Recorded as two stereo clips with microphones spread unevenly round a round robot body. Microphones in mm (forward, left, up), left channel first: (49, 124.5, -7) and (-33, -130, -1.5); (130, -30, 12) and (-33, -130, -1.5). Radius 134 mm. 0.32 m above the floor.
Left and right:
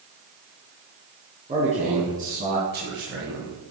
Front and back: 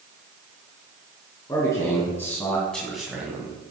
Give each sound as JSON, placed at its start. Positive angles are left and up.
{"t": 1.5, "sound": "a man speaking", "azimuth_deg": -40, "distance_m": 3.0}